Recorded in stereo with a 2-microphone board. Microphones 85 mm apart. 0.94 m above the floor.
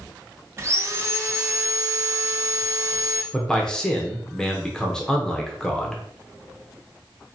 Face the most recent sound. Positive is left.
turn(degrees=10)  # may be behind; listen again after turning